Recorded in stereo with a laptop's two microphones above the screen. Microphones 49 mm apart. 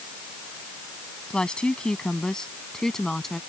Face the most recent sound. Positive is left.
turn(degrees=10)  # may be behind; listen again after turning